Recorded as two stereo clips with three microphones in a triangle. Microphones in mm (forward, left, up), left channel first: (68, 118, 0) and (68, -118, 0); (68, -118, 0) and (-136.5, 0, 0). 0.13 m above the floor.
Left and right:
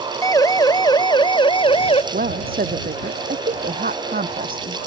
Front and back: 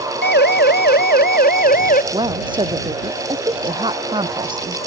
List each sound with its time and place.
0.2 s a siren: 15° left; by 2.0 s 25° left
2.1 s a woman speaking: 140° right